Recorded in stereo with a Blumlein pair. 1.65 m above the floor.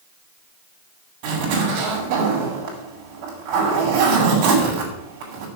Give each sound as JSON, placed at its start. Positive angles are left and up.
{"t": 1.2, "sound": "a zipper", "azimuth_deg": -45, "distance_m": 6.0}